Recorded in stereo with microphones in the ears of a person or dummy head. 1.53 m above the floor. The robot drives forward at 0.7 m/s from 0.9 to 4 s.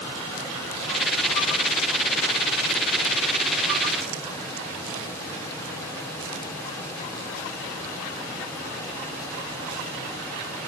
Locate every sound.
Only background noise.